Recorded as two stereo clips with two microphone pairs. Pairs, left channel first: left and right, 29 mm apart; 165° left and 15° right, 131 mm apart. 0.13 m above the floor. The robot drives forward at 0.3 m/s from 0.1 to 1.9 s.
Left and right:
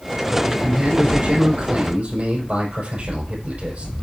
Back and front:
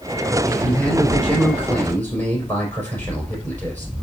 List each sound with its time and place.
0.5 s a man speaking: 115° right, 5 m; by 3.9 s 120° right, 5 m